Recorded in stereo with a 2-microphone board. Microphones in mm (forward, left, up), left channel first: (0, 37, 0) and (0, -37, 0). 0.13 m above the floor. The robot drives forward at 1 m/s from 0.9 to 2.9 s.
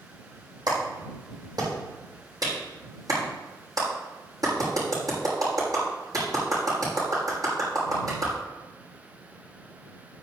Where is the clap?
70° right (ahead or behind), 5.5 m; by 8.3 s 55° right (ahead or behind), 6.5 m.